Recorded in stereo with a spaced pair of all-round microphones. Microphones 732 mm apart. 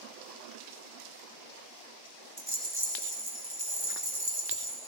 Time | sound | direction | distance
2.4 | a rattle | 40° right (ahead or behind) | 2.5 m